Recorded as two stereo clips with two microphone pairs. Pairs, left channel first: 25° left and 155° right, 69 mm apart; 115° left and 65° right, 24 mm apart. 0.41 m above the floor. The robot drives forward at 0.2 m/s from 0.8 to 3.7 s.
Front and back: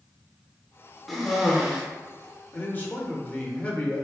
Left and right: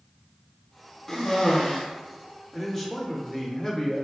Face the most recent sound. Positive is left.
turn(degrees=75)